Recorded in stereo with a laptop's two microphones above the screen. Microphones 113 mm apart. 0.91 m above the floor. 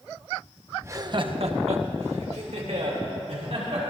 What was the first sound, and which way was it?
Laughter, 20° right (ahead or behind).